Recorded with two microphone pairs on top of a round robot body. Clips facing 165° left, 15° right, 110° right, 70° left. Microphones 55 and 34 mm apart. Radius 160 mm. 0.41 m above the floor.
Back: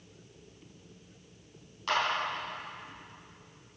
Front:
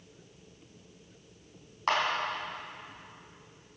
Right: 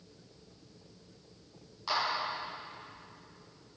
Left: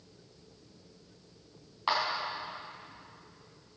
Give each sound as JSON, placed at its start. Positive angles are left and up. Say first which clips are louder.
{"t": 1.9, "sound": "a clap", "louder": "front 2 dB, left 3 dB", "azimuth_deg": 25, "distance_m": 4.5}